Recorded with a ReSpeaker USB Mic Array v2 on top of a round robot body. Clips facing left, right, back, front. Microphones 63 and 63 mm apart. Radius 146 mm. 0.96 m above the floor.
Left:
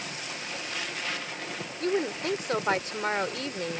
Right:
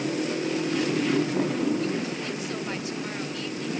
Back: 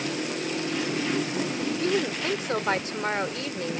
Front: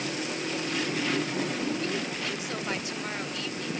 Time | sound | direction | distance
0.0 | a motorcycle | 100° right | ?
1.8 | a woman speaking | 130° left | ?